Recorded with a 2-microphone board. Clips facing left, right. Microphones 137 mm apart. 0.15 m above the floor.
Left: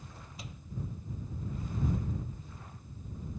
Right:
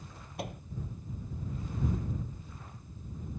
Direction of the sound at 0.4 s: 60° right (ahead or behind).